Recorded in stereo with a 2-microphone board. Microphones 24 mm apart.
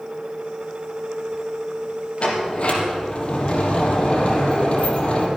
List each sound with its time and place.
2.2 s a sliding door: 50° left (ahead or behind), 3 m